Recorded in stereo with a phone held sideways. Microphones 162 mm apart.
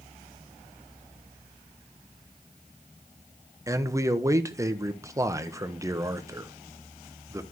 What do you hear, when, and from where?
3.7 s a man speaking: 20° right (ahead or behind), 0.8 m